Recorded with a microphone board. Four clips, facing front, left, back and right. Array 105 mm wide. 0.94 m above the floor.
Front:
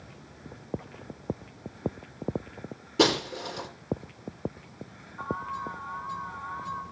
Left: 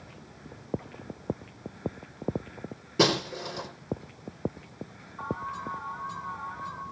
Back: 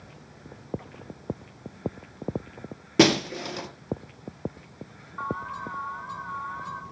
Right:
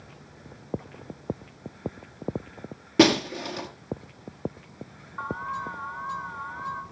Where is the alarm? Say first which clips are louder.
Right 2 dB, back 1 dB; 130° right, 4.5 m.